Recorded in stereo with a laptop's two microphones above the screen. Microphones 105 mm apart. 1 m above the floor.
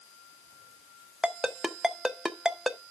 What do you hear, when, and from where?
1.2 s a ringtone: 5° right (ahead or behind), 0.5 m